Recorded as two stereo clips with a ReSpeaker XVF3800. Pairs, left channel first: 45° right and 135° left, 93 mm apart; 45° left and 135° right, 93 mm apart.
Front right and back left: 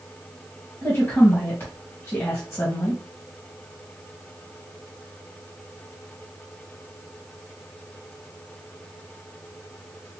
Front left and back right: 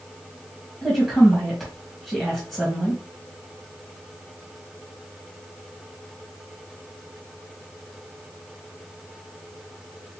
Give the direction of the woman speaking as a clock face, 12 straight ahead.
1 o'clock.